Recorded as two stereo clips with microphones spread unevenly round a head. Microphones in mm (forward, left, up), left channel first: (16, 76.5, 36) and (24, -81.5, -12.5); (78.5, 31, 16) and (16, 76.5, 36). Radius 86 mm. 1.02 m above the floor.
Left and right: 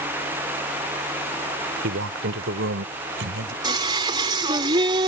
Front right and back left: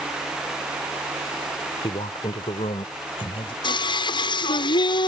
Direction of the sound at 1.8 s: 80° right.